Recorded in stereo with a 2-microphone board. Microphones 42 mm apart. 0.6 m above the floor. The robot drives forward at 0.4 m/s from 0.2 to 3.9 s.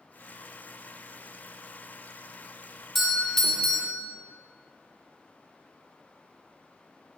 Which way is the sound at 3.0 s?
10° left (ahead or behind).